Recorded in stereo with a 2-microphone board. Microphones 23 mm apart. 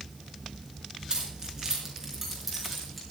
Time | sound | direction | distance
1.1 | keys jangling | 35° right (ahead or behind) | 3.5 m